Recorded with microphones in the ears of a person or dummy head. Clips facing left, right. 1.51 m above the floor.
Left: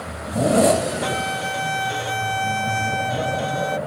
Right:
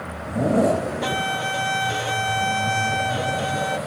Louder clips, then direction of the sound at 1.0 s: Left 1 dB; centre (ahead or behind).